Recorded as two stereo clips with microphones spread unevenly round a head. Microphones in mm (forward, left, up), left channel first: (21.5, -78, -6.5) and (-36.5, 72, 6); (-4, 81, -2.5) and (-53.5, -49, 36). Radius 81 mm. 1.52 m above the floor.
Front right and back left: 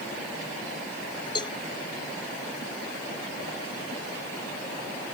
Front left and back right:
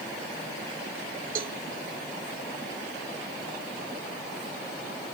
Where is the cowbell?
135° right.